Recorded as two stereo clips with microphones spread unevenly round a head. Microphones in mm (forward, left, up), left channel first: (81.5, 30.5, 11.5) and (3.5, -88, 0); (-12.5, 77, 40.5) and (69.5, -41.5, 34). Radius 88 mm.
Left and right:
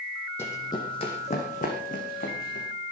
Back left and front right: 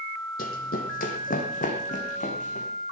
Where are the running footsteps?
125° left, 2.5 m; by 2.7 s 90° left, 5 m.